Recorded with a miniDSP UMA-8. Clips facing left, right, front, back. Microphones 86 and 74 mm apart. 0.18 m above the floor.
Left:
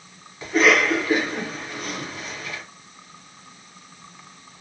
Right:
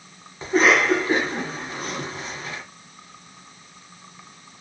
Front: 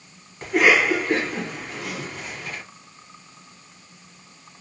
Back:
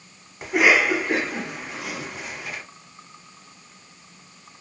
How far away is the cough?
About 1.1 m.